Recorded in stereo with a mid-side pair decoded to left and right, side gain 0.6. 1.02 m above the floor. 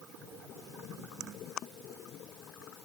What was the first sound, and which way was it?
Only background noise.